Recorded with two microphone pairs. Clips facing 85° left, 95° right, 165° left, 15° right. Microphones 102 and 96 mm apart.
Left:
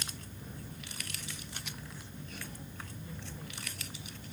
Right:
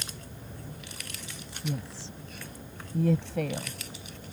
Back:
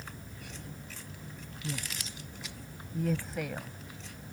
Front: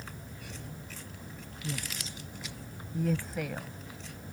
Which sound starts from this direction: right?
A woman speaking, at 1.6 s.